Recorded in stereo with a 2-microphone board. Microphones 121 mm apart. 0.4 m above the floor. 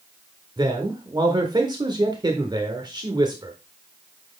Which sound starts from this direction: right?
A man speaking, at 0.6 s.